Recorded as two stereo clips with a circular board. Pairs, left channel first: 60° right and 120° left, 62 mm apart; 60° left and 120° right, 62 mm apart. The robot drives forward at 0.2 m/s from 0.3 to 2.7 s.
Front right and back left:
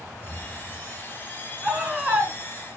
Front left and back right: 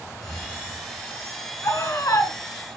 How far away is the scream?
About 3.5 m.